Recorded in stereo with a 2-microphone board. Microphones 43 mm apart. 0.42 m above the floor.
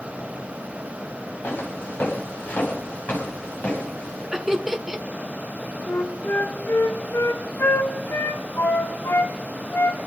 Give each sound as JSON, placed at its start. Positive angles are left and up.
{"t": 1.4, "sound": "footsteps", "side_deg": 45, "distance_m": 4.5}
{"t": 4.3, "sound": "laughter", "side_deg": -10, "distance_m": 1.1}
{"t": 5.9, "sound": "a flute", "side_deg": 80, "distance_m": 1.1}